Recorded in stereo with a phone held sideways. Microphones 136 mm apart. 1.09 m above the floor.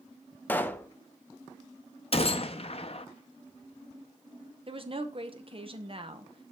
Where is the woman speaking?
45° right (ahead or behind), 0.9 m.